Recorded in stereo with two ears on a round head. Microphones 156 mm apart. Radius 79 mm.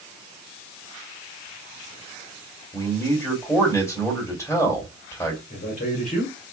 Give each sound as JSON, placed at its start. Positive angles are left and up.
{"t": 2.7, "sound": "a man speaking", "side_deg": 15, "distance_m": 2.0}
{"t": 5.5, "sound": "a man speaking", "side_deg": 50, "distance_m": 1.7}